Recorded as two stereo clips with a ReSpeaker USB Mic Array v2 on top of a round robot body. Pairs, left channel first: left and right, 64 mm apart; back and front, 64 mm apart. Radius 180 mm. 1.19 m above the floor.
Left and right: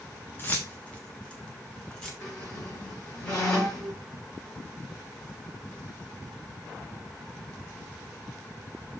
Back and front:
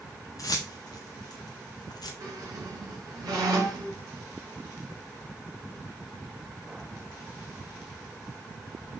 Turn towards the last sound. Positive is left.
turn(degrees=35)